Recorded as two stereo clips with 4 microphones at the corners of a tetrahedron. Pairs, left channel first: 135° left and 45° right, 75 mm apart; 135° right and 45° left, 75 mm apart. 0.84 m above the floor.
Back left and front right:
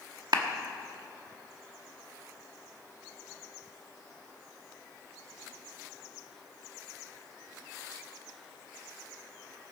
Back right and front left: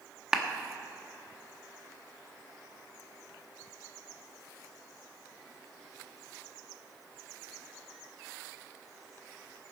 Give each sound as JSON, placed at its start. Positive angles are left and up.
{"t": 0.3, "sound": "a clap", "azimuth_deg": -35, "distance_m": 1.0}